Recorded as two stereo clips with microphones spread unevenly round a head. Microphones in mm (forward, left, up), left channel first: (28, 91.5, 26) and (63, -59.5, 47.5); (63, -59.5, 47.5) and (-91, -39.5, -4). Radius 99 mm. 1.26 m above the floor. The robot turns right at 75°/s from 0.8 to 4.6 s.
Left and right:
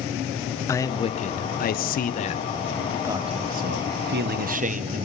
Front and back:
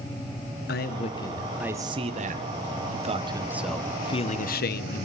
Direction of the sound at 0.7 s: 35° left.